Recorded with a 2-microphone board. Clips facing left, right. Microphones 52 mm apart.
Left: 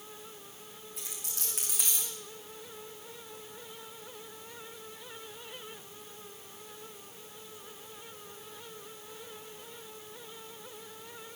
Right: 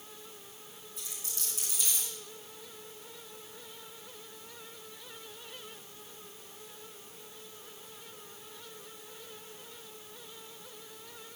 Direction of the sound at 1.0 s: 65° left (ahead or behind).